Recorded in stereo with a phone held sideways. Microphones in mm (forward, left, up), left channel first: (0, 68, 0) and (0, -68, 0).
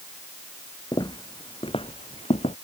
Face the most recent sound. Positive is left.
turn(degrees=50)  # may be behind; listen again after turning